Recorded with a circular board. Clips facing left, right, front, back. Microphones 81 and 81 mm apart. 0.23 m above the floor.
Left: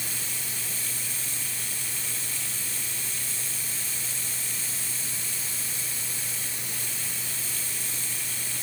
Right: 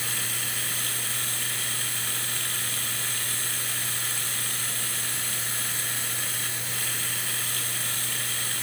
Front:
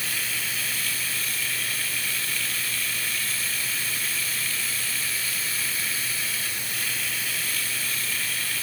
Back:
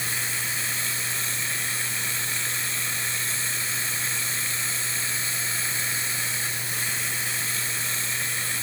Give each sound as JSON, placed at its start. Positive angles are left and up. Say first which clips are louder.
{"t": 0.0, "sound": "running water", "louder": "right 5 dB, back 1 dB", "azimuth_deg": -115}